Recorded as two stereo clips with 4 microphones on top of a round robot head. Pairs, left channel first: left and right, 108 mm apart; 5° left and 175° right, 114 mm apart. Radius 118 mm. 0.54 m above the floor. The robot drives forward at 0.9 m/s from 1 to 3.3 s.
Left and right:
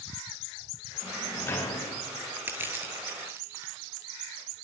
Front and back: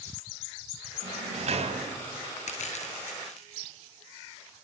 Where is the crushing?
20° right, 7 m.